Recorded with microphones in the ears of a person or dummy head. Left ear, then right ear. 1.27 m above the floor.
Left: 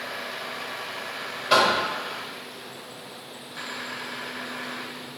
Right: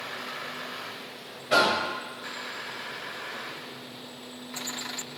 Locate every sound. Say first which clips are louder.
1.5 s knocking: left 3 dB; 55° left (ahead or behind), 0.8 m